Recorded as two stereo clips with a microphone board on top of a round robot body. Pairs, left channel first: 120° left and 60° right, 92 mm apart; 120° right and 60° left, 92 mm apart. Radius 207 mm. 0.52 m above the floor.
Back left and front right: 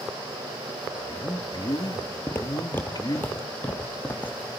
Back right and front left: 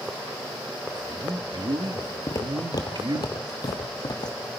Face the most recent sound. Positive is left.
turn(degrees=-165)